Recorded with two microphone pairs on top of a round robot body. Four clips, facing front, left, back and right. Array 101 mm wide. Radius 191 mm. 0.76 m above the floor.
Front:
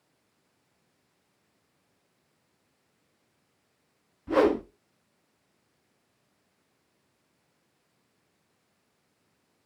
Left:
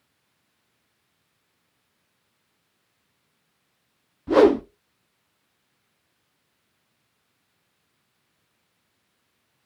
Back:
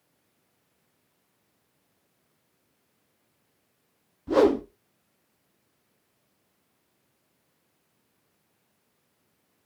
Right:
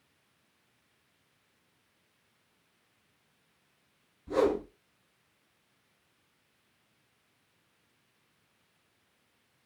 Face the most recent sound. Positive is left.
turn(degrees=110)